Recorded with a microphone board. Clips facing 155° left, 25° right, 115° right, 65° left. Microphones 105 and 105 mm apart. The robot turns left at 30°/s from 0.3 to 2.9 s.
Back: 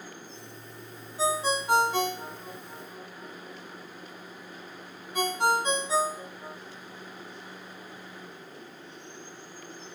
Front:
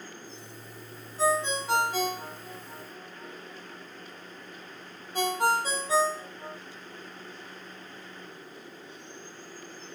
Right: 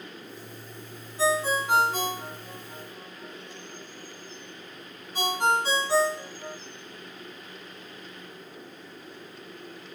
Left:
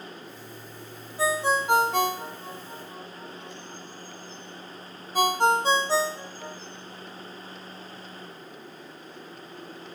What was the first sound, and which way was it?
A ringtone, 80° left.